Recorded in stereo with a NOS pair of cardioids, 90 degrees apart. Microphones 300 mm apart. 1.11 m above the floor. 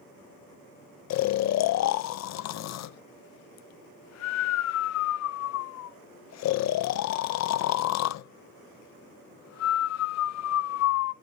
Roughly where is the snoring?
Ahead left.